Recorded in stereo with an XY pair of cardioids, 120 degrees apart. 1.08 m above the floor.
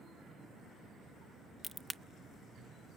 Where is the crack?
Straight ahead, 1.0 m.